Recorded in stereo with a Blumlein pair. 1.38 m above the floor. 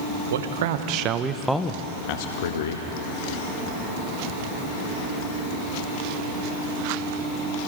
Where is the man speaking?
60° right, 1.4 m; by 2.9 s 65° left, 1.4 m.